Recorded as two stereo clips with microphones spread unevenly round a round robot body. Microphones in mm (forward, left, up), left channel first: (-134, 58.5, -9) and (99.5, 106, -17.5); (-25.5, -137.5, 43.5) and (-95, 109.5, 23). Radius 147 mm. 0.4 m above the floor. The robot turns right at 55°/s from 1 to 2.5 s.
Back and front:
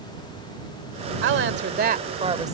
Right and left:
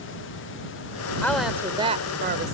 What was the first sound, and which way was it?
A woman speaking, 10° left.